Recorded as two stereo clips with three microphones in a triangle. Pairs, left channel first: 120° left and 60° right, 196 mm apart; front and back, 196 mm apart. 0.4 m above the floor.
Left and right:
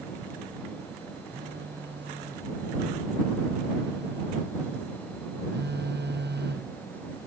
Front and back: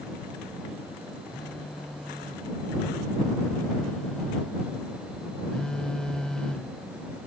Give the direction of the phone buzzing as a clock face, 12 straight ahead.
3 o'clock.